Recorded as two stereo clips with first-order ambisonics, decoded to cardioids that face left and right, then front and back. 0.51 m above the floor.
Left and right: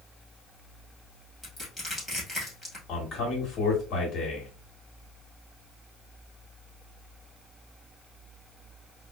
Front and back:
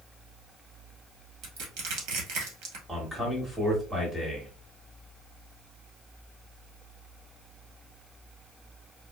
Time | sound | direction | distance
1.4 | crushing | straight behind | 1.8 m
2.9 | a man speaking | 100° left | 1.4 m